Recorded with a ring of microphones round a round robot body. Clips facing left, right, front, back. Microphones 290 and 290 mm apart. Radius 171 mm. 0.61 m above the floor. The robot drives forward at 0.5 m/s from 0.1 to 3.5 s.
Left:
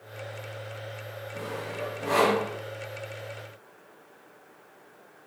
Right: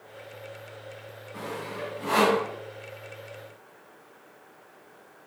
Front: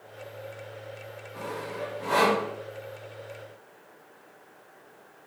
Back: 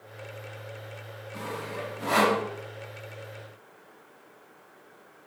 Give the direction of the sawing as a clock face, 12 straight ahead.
6 o'clock.